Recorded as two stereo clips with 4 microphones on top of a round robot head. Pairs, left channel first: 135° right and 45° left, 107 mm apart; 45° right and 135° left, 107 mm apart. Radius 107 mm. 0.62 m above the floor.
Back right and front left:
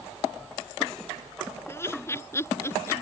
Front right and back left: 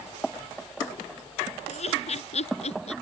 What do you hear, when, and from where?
1.7 s laughter: 65° right